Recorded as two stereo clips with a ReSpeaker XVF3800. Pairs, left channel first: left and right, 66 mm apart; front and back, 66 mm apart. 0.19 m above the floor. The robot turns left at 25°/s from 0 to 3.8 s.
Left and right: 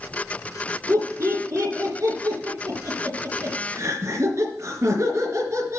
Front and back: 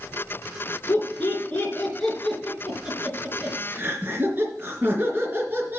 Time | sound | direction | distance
0.9 | laughter | 55° right | 3 m